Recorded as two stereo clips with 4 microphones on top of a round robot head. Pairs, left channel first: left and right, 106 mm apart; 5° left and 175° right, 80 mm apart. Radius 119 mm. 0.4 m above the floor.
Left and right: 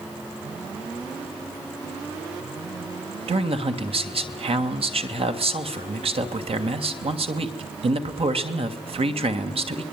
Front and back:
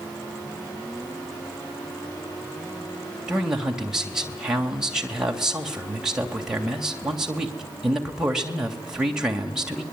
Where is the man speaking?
95° right, 2.5 m.